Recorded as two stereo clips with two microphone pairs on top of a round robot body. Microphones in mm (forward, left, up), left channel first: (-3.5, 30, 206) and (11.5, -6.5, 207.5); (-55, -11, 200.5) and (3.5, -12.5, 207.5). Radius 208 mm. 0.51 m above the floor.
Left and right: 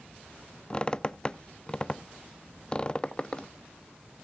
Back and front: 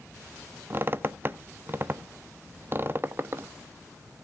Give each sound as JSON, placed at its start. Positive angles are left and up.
{"t": 0.7, "sound": "a squeak", "azimuth_deg": 50, "distance_m": 0.7}